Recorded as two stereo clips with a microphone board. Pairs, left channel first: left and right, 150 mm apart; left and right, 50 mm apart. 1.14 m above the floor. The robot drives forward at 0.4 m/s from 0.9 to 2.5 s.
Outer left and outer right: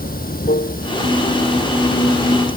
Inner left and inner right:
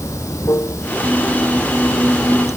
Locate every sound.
0.0 s running water: 75° left (ahead or behind)